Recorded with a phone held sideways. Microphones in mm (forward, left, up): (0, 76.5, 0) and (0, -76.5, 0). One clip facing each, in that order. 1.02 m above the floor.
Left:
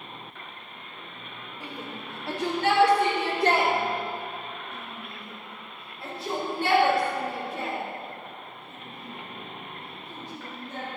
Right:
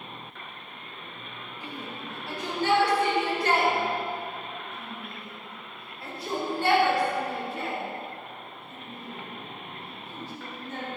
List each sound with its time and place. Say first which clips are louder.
1.6 s a shout: even; 75° left (ahead or behind), 2.5 m; by 10.9 s 10° left (ahead or behind), 8 m